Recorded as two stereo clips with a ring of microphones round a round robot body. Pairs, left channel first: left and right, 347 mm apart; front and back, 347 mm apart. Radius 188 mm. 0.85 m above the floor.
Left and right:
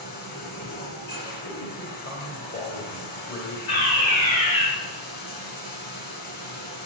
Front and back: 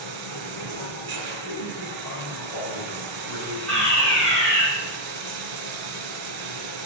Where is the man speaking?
30° left, 3 m.